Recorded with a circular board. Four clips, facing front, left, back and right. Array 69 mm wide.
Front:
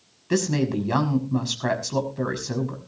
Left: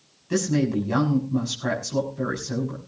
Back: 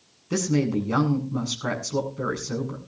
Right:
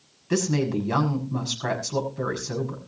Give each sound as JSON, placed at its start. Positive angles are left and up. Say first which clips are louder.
{"t": 0.3, "sound": "a woman speaking", "louder": "left 1 dB, even", "azimuth_deg": -20, "distance_m": 6.5}